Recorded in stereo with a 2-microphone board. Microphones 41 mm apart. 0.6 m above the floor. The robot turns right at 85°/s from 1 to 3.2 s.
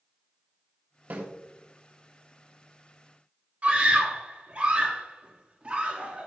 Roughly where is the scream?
Right.